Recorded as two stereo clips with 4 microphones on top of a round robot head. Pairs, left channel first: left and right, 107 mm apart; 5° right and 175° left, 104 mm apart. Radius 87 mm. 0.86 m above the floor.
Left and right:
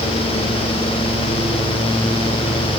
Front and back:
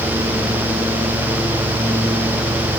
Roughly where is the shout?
I don't hear a shout.